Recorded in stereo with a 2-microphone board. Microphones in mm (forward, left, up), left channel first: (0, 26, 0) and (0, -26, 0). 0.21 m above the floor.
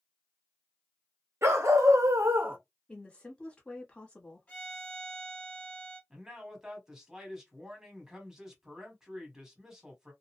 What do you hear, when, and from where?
1.4 s a dog barking: 65° right (ahead or behind), 1.0 m; by 2.6 s 30° right (ahead or behind), 0.5 m
2.9 s a woman speaking: 20° left (ahead or behind), 1.1 m
4.5 s a violin: 30° left (ahead or behind), 1.6 m
6.1 s a man speaking: 10° right (ahead or behind), 1.1 m